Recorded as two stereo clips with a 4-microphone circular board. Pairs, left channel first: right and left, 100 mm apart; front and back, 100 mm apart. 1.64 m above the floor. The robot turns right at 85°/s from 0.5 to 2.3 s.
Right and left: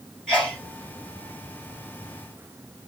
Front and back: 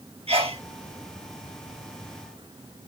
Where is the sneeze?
165° left, 1.1 m; by 0.6 s 175° left, 1.1 m.